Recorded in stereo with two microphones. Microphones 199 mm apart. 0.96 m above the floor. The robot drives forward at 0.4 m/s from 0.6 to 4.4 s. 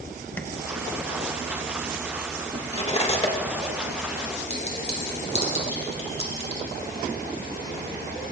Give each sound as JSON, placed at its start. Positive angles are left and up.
{"t": 0.4, "sound": "tapping", "side_deg": 10, "distance_m": 0.9}
{"t": 2.7, "sound": "cutlery clinking", "side_deg": 35, "distance_m": 1.5}
{"t": 4.5, "sound": "a clink", "side_deg": 30, "distance_m": 3.5}